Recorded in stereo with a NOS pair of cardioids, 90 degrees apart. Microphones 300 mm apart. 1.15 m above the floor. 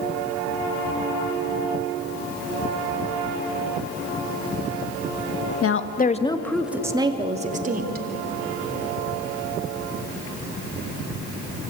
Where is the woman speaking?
50° left, 1.7 m; by 8.1 s 30° right, 3.5 m.